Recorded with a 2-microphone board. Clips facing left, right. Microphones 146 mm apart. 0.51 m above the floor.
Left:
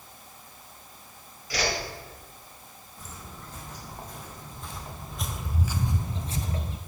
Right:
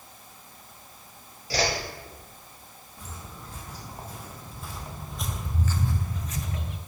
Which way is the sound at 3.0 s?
10° right (ahead or behind).